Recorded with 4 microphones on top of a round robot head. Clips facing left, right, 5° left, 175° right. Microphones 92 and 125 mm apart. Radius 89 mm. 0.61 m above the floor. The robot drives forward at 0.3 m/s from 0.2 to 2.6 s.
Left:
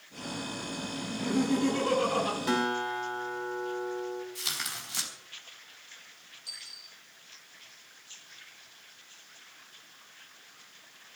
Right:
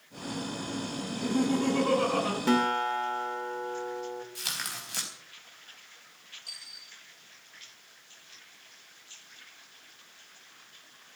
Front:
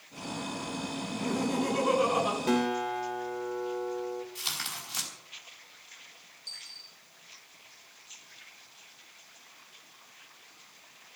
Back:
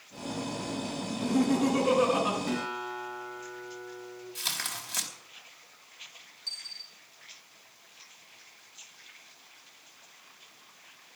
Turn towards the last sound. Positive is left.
turn(degrees=-150)